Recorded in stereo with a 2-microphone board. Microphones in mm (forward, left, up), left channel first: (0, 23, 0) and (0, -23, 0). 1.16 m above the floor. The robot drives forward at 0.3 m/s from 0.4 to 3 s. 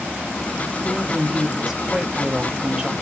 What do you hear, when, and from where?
0.8 s a woman speaking: 10° right (ahead or behind), 1.3 m; by 2.9 s 15° right (ahead or behind), 0.7 m